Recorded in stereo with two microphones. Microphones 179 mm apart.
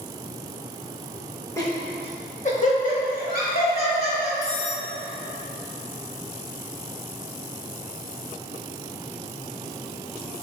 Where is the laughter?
15° left (ahead or behind), 1.2 m; by 4.3 s 60° left (ahead or behind), 3 m.